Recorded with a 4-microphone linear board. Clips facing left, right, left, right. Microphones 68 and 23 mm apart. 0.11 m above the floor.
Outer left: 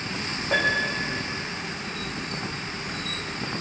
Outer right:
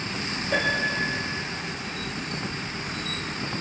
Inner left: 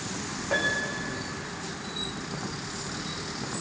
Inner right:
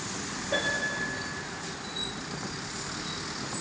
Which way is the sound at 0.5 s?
70° left (ahead or behind).